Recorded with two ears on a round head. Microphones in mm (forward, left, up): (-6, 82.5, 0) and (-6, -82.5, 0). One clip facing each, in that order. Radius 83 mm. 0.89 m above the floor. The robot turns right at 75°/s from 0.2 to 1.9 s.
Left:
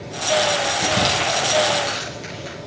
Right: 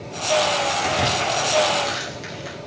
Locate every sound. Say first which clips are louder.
0.8 s crumpling: left 1 dB; 70° left (ahead or behind), 8 m; by 2.6 s 10° right (ahead or behind), 8 m